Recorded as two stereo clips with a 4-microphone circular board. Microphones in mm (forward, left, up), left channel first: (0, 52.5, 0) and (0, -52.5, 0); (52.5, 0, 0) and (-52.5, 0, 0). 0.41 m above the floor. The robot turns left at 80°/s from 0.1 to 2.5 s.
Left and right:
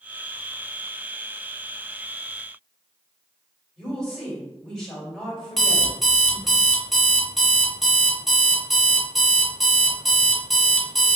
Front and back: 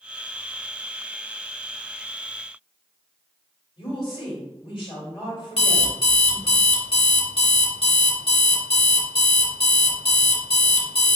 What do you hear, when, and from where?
3.8 s a woman speaking: 5° left, 1.7 m
5.6 s an alarm clock: straight ahead, 0.7 m